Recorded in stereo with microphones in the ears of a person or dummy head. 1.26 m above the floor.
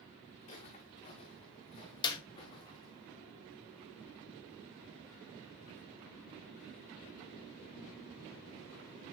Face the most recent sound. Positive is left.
turn(degrees=20)  # may be behind; listen again after turning